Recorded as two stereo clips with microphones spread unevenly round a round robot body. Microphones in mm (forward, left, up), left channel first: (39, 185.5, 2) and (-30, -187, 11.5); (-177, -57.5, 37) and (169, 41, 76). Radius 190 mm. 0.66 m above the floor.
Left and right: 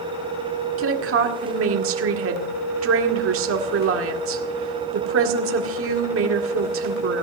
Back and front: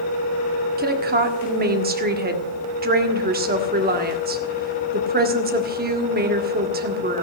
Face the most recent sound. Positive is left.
turn(degrees=-50)